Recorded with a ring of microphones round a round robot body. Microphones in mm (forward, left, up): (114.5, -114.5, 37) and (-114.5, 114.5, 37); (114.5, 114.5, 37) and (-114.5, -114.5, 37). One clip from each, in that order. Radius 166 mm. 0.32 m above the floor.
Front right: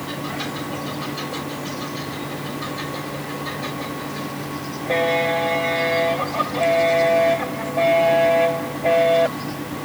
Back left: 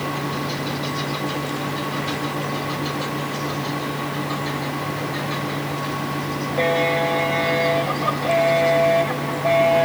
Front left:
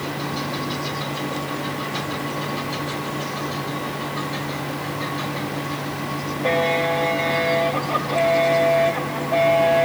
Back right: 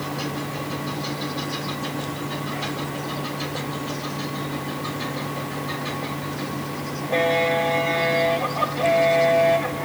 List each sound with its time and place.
Only background noise.